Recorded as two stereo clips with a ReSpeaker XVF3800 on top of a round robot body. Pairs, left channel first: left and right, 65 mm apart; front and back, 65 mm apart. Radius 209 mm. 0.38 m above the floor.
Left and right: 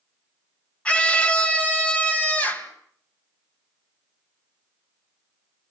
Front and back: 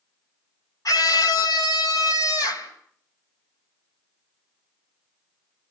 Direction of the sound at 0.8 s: 20° left.